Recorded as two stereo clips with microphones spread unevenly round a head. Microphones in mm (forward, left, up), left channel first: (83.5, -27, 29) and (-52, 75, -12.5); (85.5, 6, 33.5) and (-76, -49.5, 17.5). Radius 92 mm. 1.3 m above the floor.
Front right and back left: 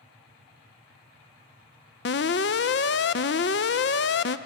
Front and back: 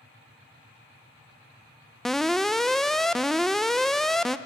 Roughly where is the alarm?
Right.